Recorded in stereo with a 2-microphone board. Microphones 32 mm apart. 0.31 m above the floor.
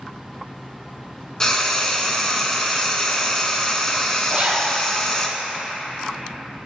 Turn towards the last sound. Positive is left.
turn(degrees=-35)  # may be behind; listen again after turning